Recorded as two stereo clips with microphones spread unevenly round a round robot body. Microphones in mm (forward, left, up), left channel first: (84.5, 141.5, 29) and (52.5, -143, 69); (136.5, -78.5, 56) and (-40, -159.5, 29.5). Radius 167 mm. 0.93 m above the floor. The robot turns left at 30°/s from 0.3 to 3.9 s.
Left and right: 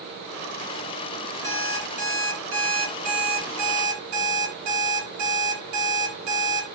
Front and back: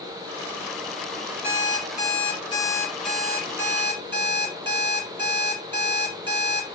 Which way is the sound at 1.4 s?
15° right.